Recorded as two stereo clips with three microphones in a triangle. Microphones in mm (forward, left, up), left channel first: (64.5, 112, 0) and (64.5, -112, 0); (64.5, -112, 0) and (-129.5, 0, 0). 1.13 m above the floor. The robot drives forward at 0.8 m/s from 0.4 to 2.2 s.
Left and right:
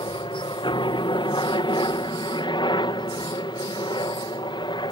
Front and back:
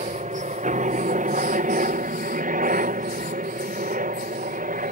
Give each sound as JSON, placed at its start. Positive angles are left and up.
{"t": 0.0, "sound": "a helicopter", "azimuth_deg": 140}